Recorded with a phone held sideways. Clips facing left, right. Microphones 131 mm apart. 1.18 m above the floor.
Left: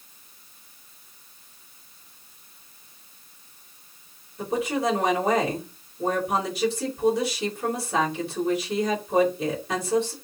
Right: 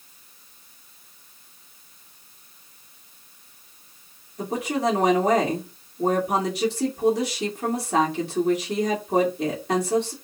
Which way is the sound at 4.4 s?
75° right (ahead or behind).